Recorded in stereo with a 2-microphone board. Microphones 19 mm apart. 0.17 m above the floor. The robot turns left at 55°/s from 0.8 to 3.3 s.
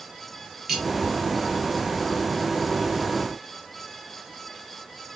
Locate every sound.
0.7 s cutlery clinking: 20° right (ahead or behind), 2 m